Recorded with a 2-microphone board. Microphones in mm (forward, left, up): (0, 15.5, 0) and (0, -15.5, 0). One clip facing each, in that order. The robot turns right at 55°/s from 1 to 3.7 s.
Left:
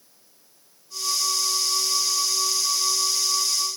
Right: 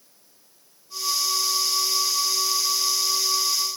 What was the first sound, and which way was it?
Only background noise.